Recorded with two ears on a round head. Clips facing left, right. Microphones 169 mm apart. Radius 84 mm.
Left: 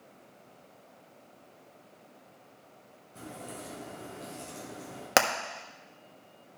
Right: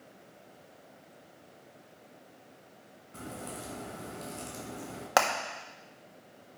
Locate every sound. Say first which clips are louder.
3.1 s a crack: right 1 dB; 80° right, 5 m
5.2 s hammering: left 1 dB; 25° left (ahead or behind), 1.2 m